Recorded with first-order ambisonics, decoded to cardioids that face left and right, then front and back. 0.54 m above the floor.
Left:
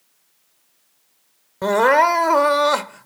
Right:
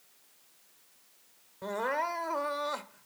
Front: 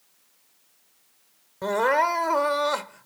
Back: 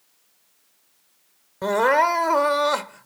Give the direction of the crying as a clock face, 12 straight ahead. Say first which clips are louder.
Left 17 dB, back 3 dB; 9 o'clock.